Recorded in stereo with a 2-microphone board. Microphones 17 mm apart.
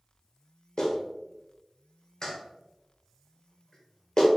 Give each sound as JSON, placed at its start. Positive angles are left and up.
{"t": 0.8, "sound": "a clap", "side_deg": 35, "distance_m": 1.0}